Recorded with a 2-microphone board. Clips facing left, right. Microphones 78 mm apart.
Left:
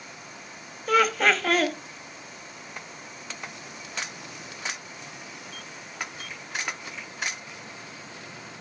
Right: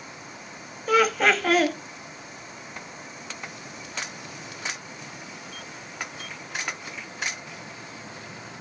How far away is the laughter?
About 1.4 m.